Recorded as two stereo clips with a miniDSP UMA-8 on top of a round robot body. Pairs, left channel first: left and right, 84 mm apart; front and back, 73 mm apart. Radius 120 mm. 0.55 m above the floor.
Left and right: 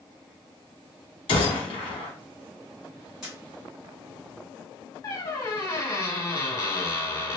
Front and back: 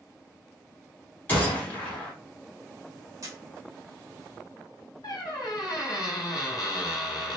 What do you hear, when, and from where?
1.3 s a gunshot: 70° left, 0.8 m
3.2 s a camera shutter: 170° right, 1.7 m
5.0 s a squeak: 40° left, 0.9 m